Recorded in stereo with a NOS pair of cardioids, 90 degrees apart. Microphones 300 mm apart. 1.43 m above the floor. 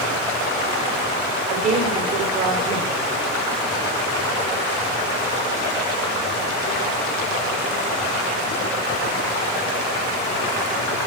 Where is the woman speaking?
70° right, 4 m.